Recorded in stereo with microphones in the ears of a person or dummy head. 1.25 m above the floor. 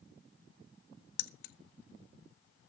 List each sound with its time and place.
1.2 s keys jangling: 65° left (ahead or behind), 0.7 m